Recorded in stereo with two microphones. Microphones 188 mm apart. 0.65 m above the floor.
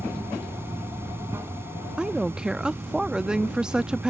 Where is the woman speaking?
5° right (ahead or behind).